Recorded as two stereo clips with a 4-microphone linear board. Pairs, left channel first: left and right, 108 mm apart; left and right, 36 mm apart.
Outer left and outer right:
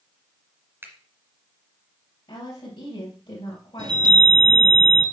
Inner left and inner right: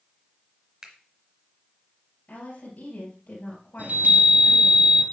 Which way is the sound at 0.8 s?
20° right (ahead or behind).